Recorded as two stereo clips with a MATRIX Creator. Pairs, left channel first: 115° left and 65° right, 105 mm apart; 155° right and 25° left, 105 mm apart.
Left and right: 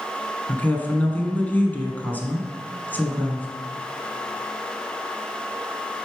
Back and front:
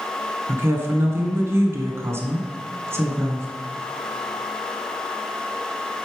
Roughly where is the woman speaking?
Ahead left.